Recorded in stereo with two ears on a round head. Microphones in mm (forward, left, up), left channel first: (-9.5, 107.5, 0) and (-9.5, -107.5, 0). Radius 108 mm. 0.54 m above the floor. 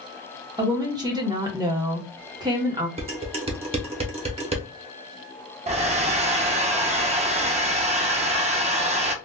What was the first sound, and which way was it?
A woman speaking, 15° right (ahead or behind).